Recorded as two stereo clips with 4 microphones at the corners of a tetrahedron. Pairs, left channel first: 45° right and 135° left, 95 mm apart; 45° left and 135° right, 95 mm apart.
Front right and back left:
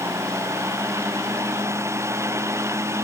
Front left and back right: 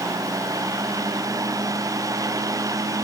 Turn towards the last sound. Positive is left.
No sound to turn to.